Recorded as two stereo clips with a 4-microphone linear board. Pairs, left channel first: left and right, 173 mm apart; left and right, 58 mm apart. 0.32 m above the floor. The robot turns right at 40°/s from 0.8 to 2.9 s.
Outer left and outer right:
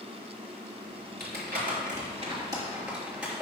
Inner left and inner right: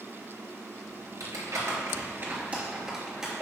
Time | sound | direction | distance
1.2 | crumpling | 70° right (ahead or behind) | 3 m